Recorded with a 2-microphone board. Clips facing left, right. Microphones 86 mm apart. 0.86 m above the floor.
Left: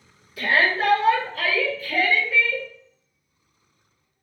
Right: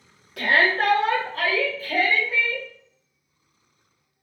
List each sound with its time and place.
0.4 s a shout: 65° right (ahead or behind), 0.8 m; by 2.6 s 25° right (ahead or behind), 1.6 m